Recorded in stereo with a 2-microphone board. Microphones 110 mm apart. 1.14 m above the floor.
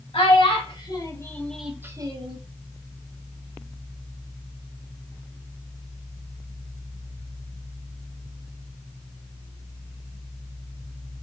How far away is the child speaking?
About 1.1 m.